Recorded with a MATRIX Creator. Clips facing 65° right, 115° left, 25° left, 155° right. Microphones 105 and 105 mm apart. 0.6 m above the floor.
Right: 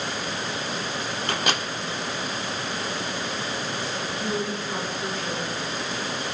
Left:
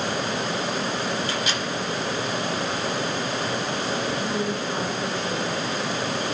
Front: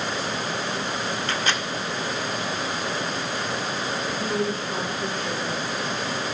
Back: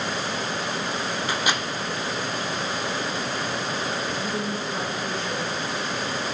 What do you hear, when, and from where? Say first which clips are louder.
1.3 s a microwave: even, back 2 dB; 80° right, 1.4 m
4.1 s a woman speaking: left 2 dB, front 2 dB; 10° left, 8.5 m